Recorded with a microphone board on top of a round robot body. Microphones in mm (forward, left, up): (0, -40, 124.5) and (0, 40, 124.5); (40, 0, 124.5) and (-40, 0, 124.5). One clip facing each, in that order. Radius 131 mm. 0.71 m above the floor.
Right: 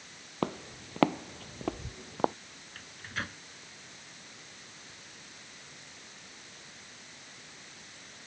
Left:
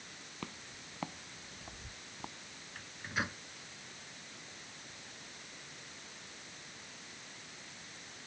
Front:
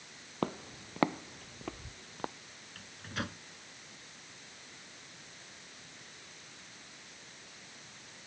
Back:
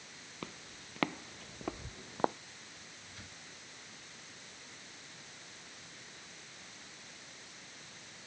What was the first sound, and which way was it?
Footsteps, 45° right.